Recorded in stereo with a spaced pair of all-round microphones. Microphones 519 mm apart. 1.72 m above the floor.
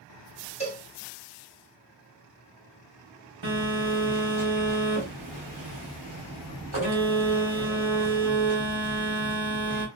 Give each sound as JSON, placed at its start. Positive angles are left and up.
{"t": 0.6, "sound": "a cowbell", "side_deg": 10, "distance_m": 0.8}
{"t": 3.4, "sound": "a phone buzzing", "side_deg": -60, "distance_m": 1.7}